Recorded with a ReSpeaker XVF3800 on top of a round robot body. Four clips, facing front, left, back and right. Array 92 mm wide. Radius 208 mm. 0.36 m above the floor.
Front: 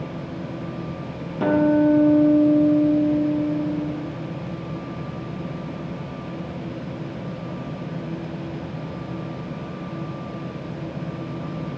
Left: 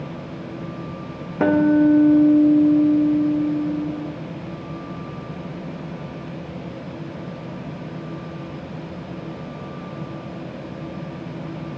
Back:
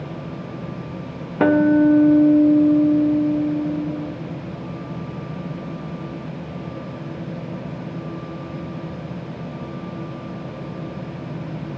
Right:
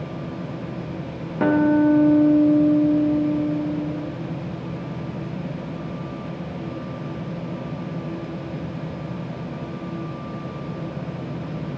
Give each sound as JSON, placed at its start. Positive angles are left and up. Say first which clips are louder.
{"t": 1.4, "sound": "a guitar", "louder": "left 2 dB, back 3 dB", "azimuth_deg": 165, "distance_m": 1.2}